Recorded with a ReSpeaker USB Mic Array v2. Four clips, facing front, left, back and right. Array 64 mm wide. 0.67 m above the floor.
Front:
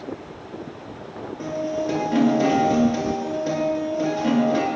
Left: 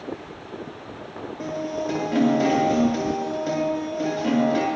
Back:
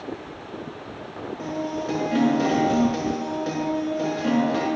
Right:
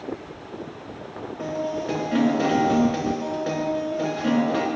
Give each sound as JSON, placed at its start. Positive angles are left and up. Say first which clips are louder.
{"t": 1.4, "sound": "a guitar", "louder": "right 1 dB, front 3 dB", "azimuth_deg": -105, "distance_m": 6.5}